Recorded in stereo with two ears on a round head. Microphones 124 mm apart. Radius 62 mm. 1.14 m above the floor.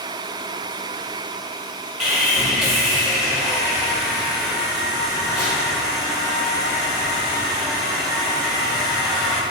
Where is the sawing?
Centre (ahead or behind), 1.0 m.